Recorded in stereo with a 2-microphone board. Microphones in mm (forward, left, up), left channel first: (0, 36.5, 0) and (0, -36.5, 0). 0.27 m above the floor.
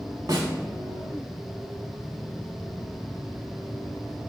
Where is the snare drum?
65° right (ahead or behind), 0.7 m.